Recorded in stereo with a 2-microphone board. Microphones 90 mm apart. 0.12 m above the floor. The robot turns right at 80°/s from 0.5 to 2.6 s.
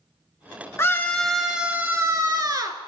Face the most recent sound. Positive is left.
turn(degrees=-80)